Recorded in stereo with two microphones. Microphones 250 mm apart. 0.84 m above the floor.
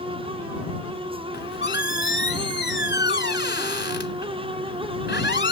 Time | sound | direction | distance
1.3 | a squeak | 45° left (ahead or behind) | ?